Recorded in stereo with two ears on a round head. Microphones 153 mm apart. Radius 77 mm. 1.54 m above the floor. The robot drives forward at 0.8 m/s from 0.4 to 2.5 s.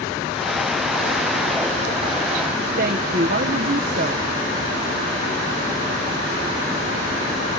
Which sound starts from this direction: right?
A woman speaking, at 2.8 s.